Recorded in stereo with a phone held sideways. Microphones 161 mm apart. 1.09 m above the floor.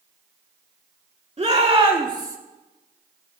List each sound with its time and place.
1.4 s a shout: 40° right (ahead or behind), 3 m; by 2.4 s 20° right (ahead or behind), 1.9 m